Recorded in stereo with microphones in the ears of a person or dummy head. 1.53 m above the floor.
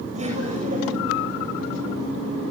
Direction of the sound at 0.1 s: 35° right (ahead or behind).